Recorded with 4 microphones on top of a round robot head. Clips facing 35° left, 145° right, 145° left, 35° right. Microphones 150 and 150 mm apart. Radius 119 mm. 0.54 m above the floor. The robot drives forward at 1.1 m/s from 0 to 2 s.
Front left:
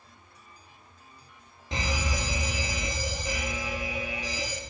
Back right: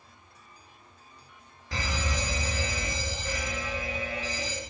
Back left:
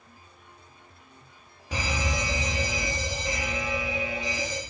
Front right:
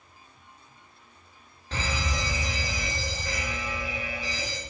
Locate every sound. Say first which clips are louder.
1.7 s a fire alarm: front left 1 dB, back left 2 dB; 80° left, 2 m; by 4.6 s 95° left, 2 m